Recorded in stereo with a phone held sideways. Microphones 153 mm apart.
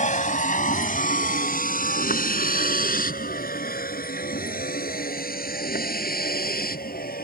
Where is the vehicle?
60° left (ahead or behind); by 7.2 s 80° left.